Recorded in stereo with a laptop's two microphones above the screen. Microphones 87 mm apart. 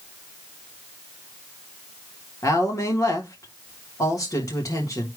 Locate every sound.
2.4 s a woman speaking: 40° left (ahead or behind), 1.6 m